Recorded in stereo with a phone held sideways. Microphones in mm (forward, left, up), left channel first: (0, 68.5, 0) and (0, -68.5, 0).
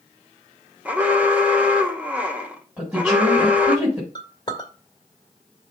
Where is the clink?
35° left (ahead or behind), 1.9 m.